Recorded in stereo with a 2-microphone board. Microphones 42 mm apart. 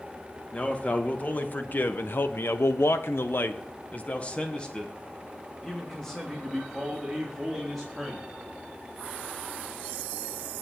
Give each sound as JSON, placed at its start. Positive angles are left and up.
{"t": 0.5, "sound": "a man speaking", "side_deg": 30, "distance_m": 2.5}